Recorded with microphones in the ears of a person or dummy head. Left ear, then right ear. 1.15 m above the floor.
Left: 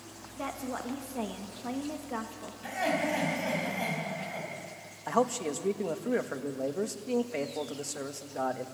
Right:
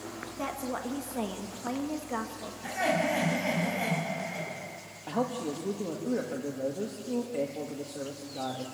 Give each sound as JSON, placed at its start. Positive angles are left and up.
{"t": 0.4, "sound": "a woman speaking", "side_deg": 5, "distance_m": 1.4}
{"t": 2.6, "sound": "laughter", "side_deg": 5, "distance_m": 6.5}
{"t": 5.1, "sound": "a man speaking", "side_deg": 60, "distance_m": 1.4}